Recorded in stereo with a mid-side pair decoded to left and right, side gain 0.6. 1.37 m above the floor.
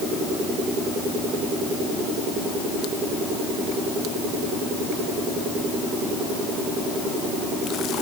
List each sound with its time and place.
Only background noise.